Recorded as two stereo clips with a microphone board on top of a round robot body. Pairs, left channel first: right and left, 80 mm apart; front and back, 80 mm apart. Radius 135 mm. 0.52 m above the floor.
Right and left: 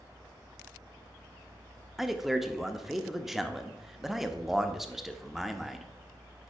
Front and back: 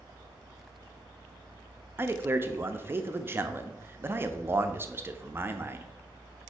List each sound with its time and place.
2.0 s a man speaking: 170° left, 0.8 m